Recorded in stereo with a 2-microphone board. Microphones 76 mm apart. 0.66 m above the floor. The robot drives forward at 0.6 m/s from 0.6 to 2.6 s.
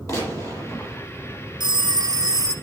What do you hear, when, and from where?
0.1 s a gunshot: 40° left (ahead or behind), 8.5 m
1.6 s a phone ringing: 65° right (ahead or behind), 1.0 m; by 2.5 s 45° right (ahead or behind), 1.3 m